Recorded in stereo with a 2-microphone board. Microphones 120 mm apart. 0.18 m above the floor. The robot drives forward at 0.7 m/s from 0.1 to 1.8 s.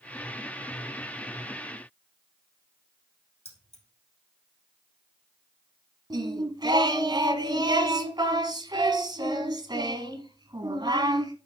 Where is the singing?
35° right (ahead or behind), 1.1 m.